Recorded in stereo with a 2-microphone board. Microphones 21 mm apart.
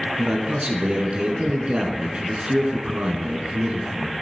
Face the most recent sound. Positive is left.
turn(degrees=-60)  # may be behind; listen again after turning